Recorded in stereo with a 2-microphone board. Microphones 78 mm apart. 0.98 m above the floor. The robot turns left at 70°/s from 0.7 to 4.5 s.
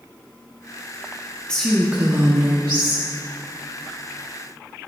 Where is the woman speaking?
15° left, 1.4 m; by 3.0 s 95° right, 1.4 m.